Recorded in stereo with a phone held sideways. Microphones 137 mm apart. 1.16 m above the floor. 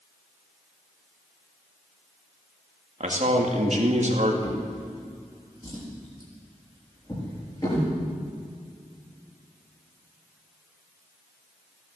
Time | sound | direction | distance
3.0 | a man speaking | 55° right (ahead or behind) | 2.5 m
4.4 | a drawer | 30° left (ahead or behind) | 5.5 m